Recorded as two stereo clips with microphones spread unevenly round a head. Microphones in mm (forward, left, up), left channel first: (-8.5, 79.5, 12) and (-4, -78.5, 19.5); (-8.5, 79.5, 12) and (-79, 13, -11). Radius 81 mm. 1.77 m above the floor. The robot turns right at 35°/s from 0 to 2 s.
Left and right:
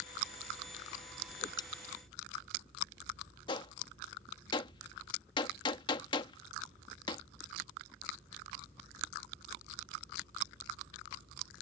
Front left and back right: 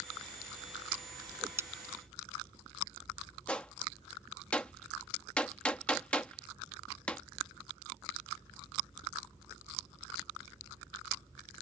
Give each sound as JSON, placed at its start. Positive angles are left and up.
{"t": 1.3, "sound": "a whoosh", "azimuth_deg": 145}
{"t": 3.5, "sound": "a gunshot", "azimuth_deg": 65}